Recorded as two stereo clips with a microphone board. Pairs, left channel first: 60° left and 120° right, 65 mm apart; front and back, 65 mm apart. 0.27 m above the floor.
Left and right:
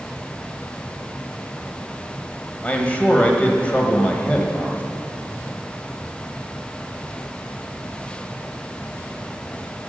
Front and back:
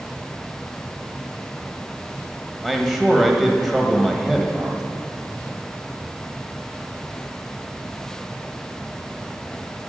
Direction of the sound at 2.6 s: 100° left.